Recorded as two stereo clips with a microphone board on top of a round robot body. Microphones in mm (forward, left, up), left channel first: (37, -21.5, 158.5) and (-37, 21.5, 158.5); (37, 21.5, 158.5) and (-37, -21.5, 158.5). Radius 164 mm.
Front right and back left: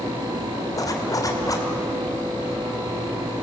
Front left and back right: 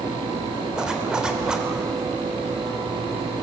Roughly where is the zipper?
Right.